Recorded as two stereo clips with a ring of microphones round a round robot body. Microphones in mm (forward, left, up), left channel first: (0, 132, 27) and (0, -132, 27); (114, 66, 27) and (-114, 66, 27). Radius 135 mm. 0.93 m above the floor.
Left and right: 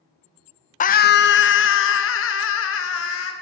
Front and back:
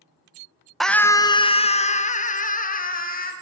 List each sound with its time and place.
0.8 s a scream: 90° left, 0.5 m; by 3.3 s 50° left, 1.7 m